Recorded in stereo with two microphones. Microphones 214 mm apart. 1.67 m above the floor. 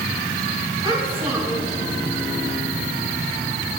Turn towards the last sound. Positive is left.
turn(degrees=-25)  # may be behind; listen again after turning